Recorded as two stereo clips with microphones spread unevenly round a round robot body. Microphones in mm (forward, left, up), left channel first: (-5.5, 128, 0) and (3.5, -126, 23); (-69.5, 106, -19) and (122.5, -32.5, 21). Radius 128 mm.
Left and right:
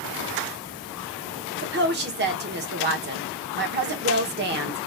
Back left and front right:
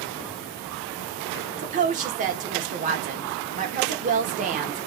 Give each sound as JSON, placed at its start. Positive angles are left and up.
{"t": 1.6, "sound": "a woman speaking", "azimuth_deg": -85, "distance_m": 0.9}